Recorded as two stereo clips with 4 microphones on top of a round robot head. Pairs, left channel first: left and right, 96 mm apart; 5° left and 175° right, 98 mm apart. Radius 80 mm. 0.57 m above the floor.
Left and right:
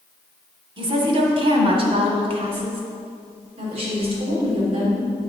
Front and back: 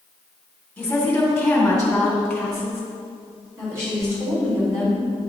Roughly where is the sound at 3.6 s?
Right.